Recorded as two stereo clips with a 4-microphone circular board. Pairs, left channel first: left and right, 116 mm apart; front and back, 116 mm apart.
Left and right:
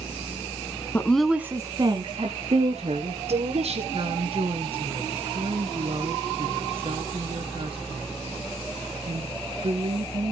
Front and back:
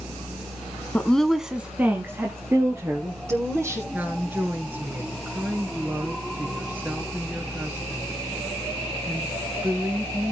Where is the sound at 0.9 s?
60° left, 1.1 m; by 3.8 s 115° right, 4 m.